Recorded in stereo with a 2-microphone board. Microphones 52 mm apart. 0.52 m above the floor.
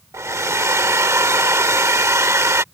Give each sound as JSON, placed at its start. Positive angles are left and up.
{"t": 0.1, "sound": "a hair dryer", "side_deg": -65}